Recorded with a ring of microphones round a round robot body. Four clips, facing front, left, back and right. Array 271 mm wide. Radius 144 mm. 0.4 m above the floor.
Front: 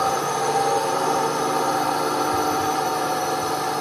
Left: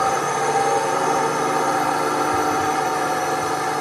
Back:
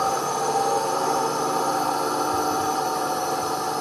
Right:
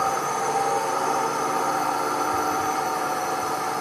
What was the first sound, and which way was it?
A drone, 70° left.